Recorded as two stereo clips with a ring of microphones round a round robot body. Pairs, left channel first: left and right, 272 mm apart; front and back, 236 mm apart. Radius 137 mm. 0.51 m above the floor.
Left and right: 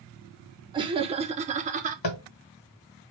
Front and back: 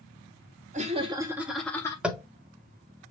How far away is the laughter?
About 1.2 m.